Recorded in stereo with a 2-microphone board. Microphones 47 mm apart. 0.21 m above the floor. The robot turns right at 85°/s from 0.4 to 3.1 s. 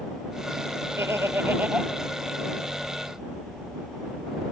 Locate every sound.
1.0 s laughter: 95° right; by 1.9 s 15° right